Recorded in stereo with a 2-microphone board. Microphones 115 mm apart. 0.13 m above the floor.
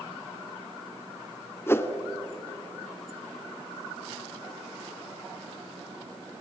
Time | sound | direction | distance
1.7 | a whoosh | 20° left (ahead or behind) | 1.1 m